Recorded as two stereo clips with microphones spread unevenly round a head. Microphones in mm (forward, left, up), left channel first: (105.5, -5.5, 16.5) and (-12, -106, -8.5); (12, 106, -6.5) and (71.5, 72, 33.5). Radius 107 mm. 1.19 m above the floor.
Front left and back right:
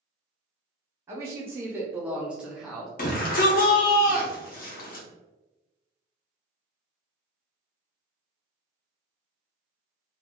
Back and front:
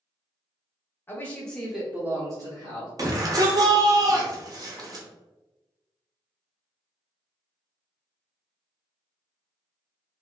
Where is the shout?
20° left, 1.0 m.